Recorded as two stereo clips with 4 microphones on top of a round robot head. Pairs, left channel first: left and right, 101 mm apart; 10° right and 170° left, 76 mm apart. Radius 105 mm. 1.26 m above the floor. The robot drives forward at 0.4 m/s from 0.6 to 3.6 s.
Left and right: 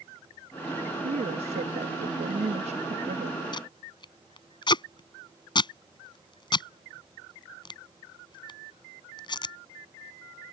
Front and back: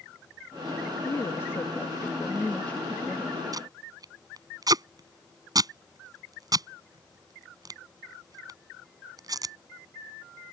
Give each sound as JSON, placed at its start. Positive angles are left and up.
{"t": 1.0, "sound": "a woman speaking", "azimuth_deg": -70}
{"t": 3.5, "sound": "tape being pulled", "azimuth_deg": 135}